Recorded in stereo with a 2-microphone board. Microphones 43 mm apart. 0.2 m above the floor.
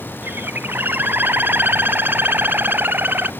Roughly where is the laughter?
No laughter in this recording.